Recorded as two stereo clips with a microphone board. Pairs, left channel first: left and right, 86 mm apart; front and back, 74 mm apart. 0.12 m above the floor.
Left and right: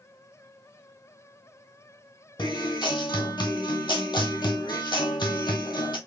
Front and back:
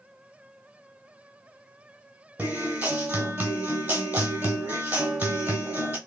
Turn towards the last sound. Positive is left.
turn(degrees=120)